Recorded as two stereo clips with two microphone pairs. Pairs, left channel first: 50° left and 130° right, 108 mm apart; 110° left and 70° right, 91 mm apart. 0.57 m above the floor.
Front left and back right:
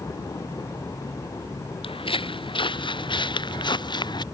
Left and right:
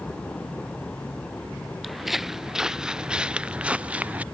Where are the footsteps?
20° left; by 4.2 s 5° left.